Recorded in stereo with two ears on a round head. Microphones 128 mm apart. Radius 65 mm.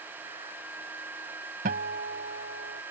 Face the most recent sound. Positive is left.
turn(degrees=-70)  # may be behind; listen again after turning